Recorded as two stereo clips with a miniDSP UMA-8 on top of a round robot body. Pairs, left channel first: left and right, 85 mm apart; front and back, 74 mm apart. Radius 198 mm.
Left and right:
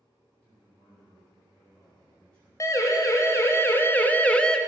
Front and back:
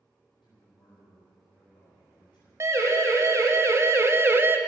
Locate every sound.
0.4 s a man speaking: 15° left, 5 m
2.6 s a siren: 135° left, 2 m; by 4.6 s 165° left, 1.2 m